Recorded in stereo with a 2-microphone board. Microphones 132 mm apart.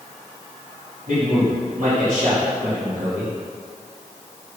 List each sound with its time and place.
1.1 s a man speaking: 75° right (ahead or behind), 3 m